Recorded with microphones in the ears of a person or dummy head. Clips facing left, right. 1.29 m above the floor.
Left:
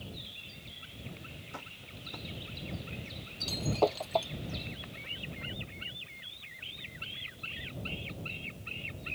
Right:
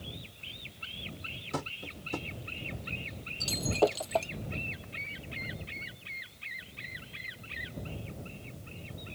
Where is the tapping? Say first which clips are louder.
Right 15 dB; 85° right.